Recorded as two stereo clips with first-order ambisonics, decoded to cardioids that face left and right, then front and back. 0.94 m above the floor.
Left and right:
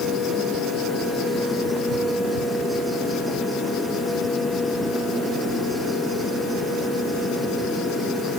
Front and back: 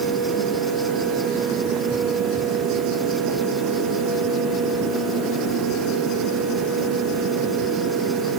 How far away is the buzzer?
No buzzer in this recording.